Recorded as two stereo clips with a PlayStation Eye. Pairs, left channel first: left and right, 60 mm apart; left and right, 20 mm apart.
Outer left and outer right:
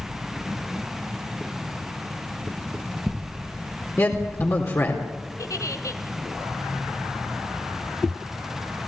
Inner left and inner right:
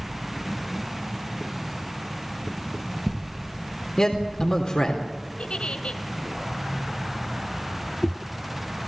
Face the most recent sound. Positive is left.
turn(degrees=65)  # may be behind; listen again after turning